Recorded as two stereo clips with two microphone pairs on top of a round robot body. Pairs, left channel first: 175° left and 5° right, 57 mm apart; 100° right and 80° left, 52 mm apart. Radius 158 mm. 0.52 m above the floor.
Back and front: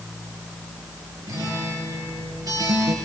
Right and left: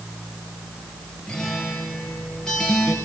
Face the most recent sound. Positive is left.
turn(degrees=-20)